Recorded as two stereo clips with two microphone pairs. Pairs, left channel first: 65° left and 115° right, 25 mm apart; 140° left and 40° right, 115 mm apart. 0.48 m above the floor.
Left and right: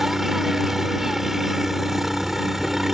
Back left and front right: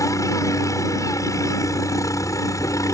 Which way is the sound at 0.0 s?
Straight behind.